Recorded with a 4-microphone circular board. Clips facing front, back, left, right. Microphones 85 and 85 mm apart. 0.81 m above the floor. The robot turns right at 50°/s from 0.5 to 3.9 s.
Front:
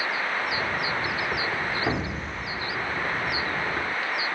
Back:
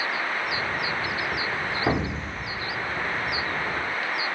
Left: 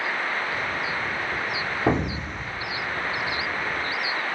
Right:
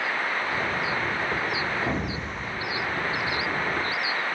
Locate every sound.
1.9 s an explosion: 105° left, 1.8 m; by 2.6 s 140° left, 1.8 m